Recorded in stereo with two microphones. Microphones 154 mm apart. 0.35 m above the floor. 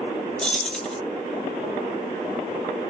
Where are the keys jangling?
5° left (ahead or behind), 0.6 m.